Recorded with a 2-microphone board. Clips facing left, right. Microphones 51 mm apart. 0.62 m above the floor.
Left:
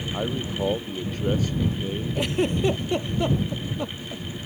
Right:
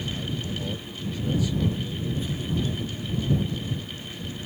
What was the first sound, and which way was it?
A man speaking, 45° left (ahead or behind).